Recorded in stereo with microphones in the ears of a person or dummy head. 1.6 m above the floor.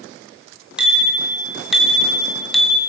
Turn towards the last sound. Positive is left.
turn(degrees=0)  # may be behind; listen again after turning